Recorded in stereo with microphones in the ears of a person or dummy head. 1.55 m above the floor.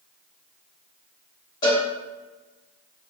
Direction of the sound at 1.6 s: 20° left (ahead or behind).